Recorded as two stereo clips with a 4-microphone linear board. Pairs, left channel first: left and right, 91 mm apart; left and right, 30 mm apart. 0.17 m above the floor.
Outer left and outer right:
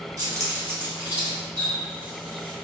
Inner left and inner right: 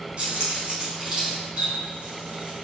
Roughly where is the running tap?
Right.